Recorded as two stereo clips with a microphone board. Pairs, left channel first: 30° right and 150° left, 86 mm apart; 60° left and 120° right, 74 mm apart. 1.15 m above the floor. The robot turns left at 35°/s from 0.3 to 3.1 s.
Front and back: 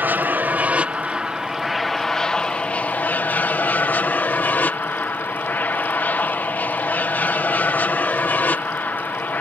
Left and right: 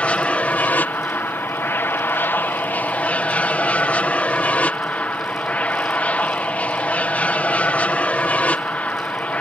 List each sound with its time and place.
0.0 s an aircraft: 115° left; by 9.4 s 15° left